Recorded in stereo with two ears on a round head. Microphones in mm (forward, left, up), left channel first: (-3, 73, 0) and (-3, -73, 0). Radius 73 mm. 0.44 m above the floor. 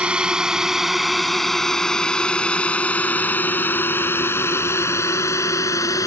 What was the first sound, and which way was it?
A drone, 5° right (ahead or behind).